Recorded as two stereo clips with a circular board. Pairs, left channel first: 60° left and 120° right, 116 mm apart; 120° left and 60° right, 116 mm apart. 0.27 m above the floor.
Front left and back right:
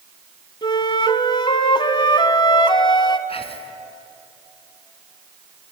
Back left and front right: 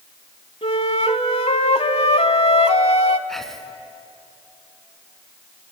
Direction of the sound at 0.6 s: 100° left.